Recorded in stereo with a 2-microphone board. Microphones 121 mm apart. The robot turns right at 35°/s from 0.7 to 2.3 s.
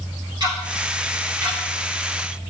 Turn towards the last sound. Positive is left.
turn(degrees=20)  # may be behind; listen again after turning